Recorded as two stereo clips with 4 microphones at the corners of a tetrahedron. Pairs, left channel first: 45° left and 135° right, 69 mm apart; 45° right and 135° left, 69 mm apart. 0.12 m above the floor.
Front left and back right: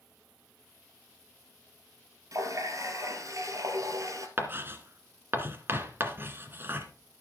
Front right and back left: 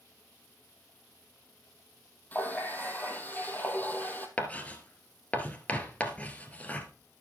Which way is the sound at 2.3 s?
105° right.